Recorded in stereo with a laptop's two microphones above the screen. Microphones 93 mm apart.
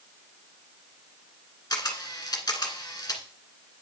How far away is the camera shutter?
About 1.7 m.